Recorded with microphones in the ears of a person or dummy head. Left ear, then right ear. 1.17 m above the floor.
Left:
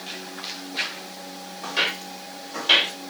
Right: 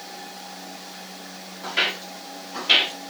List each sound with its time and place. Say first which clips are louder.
1.6 s footsteps: right 1 dB; 50° left (ahead or behind), 3 m; by 2.9 s 70° left (ahead or behind), 4 m